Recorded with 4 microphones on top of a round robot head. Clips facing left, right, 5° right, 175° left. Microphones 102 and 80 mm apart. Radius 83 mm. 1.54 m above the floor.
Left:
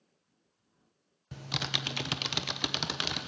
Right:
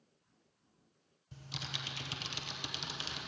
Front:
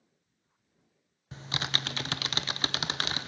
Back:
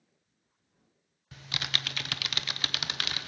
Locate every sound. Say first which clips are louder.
1.3 s typing on a keyboard: left 9 dB, front 2 dB; 50° left, 0.9 m